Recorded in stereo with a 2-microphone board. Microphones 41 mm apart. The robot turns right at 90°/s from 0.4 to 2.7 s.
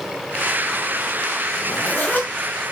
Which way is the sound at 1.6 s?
45° left.